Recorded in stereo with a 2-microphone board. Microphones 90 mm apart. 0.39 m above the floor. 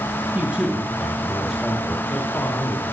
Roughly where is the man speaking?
Centre.